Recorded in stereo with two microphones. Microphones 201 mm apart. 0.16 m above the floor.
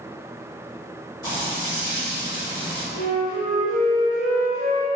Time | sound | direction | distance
1.2 | frying | 20° left (ahead or behind) | 1.8 m
2.9 | a flute | 20° left (ahead or behind) | 1.8 m